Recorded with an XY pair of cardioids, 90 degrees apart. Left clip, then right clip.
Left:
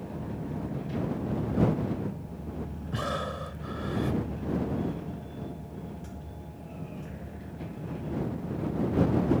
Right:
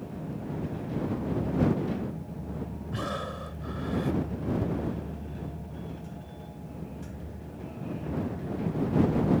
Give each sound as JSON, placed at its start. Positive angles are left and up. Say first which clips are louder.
{"t": 2.9, "sound": "breathing", "louder": "left 2 dB", "azimuth_deg": 20}